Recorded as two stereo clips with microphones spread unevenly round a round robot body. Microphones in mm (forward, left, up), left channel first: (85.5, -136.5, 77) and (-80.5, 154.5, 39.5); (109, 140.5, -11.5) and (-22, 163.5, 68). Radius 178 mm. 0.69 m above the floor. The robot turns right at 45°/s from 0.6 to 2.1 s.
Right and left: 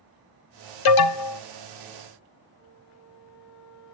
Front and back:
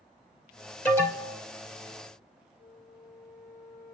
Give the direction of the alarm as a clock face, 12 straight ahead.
2 o'clock.